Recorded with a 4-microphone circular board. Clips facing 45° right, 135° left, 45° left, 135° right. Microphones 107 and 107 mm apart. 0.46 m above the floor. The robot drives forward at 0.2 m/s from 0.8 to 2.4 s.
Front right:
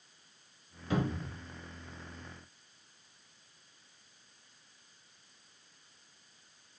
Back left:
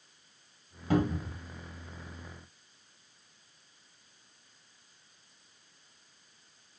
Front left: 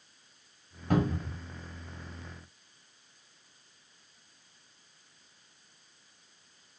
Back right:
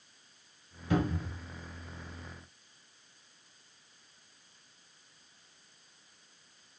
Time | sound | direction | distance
0.9 | a cupboard door | 90° left | 1.7 m